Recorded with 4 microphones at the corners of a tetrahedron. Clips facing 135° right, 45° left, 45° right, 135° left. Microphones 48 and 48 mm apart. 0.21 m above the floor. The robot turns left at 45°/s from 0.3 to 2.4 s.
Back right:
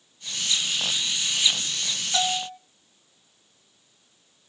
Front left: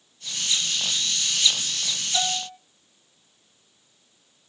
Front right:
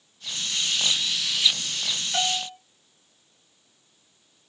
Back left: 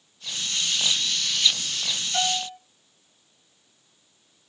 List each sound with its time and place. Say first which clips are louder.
2.1 s a bell: back right 3 dB, back left 1 dB; 95° right, 1.0 m; by 2.6 s 105° right, 1.0 m